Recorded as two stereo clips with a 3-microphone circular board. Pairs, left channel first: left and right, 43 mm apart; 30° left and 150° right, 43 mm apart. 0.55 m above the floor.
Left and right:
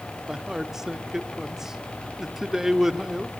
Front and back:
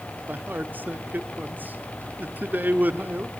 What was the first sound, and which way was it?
A man speaking, 165° right.